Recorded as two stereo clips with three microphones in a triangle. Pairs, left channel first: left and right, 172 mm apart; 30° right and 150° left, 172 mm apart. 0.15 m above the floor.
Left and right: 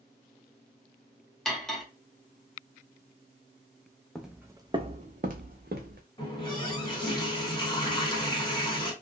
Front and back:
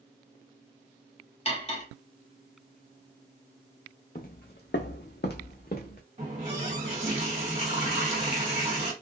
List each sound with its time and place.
1.4 s cutlery clinking: 5° left, 1.0 m
4.2 s footsteps: straight ahead, 0.6 m; by 6.0 s 65° right, 1.0 m
6.2 s a running tap: 140° left, 1.2 m